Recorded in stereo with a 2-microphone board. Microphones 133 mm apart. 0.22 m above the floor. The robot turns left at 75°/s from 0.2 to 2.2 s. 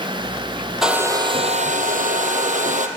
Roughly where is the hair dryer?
Ahead.